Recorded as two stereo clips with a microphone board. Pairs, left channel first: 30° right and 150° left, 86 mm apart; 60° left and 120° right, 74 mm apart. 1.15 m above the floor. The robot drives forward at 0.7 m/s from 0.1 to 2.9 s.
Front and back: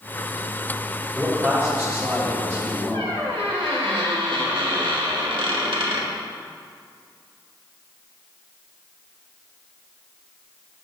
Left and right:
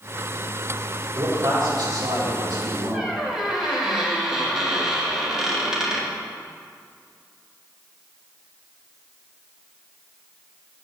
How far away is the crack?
No crack in this recording.